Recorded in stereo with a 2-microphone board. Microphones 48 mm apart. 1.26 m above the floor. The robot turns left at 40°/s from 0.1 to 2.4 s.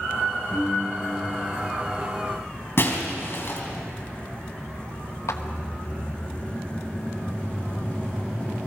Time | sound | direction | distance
0.5 | a piano | 20° left | 6.5 m
2.8 | breaking glass | 50° left (ahead or behind) | 3.5 m
5.3 | a clap | 80° left | 1.2 m